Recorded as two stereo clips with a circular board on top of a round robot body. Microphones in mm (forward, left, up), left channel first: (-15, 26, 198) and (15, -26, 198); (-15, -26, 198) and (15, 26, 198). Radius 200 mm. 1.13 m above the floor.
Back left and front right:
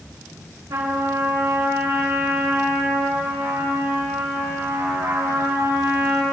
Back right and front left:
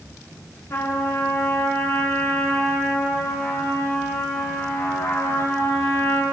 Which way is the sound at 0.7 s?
80° right.